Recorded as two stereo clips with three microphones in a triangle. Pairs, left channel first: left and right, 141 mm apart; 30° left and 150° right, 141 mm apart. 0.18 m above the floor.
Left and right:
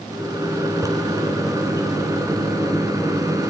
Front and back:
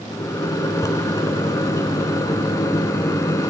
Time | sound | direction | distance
0.1 | a microwave | 30° right | 1.6 m